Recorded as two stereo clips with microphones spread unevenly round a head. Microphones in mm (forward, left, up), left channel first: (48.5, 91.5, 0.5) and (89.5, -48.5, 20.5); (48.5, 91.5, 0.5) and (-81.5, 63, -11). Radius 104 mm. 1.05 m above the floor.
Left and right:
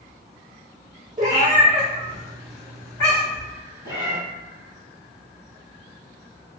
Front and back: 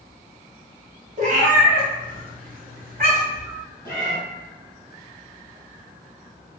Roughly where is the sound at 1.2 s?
Behind right.